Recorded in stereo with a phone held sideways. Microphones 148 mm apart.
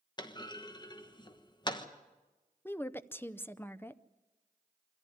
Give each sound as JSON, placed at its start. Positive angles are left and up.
{"t": 0.2, "sound": "a clunk", "side_deg": 30, "distance_m": 1.2}
{"t": 2.6, "sound": "a woman speaking", "side_deg": 15, "distance_m": 0.6}